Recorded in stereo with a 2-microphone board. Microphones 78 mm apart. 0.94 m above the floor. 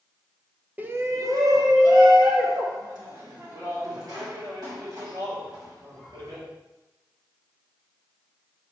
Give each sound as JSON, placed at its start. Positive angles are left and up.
{"t": 0.8, "sound": "a shout", "side_deg": -20, "distance_m": 0.6}